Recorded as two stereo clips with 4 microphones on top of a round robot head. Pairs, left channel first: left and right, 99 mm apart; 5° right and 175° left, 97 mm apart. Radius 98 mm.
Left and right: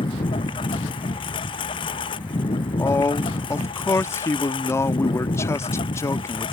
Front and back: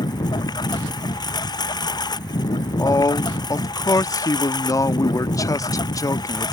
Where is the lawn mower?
40° left.